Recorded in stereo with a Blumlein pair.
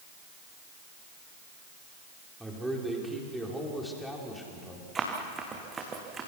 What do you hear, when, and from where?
2.4 s a man speaking: 5° right, 5 m; by 4.8 s 10° left, 5 m
5.0 s running footsteps: 20° right, 5 m